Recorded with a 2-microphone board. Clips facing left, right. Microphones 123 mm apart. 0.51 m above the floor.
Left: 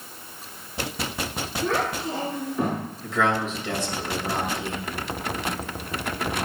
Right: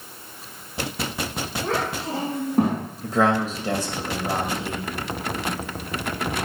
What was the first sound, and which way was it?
A child speaking, 70° right (ahead or behind).